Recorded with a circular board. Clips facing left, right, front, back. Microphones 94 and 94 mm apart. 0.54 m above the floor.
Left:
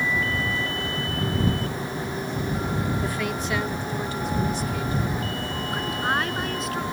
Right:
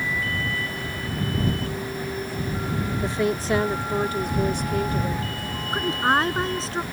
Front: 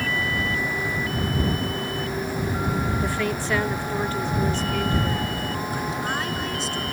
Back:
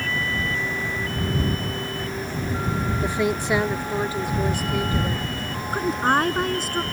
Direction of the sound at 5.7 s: 145° right.